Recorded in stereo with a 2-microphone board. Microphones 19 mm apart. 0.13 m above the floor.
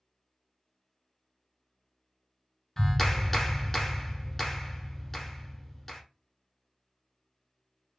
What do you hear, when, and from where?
2.8 s a clap: 10° left (ahead or behind), 1.0 m